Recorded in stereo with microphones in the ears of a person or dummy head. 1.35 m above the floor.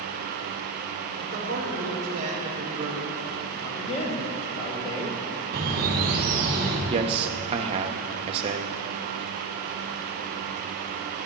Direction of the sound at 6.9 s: 30° right (ahead or behind).